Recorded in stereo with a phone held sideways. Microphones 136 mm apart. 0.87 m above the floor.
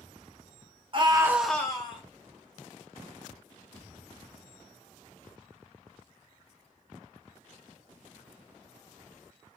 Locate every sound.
0.9 s a scream: 40° right (ahead or behind), 0.7 m; by 2.0 s 40° left (ahead or behind), 0.7 m